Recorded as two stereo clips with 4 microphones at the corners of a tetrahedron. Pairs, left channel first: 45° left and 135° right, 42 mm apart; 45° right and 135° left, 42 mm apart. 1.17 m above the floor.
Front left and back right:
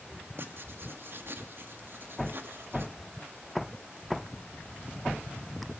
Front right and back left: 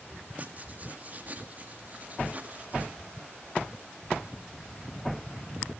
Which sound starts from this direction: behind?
Writing, at 0.4 s.